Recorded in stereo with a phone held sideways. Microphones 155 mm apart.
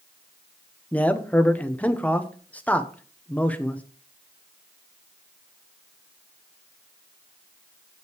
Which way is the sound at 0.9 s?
10° left (ahead or behind).